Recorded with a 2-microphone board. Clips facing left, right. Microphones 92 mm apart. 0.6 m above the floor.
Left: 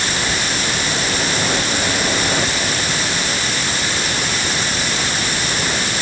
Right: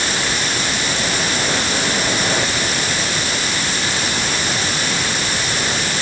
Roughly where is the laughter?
I don't hear laughter.